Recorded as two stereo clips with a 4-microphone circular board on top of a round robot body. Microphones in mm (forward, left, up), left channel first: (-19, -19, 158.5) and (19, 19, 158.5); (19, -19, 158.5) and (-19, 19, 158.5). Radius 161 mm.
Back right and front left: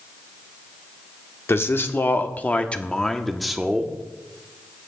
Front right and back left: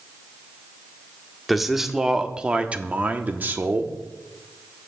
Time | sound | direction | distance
1.5 | a man speaking | 135° right | 1.2 m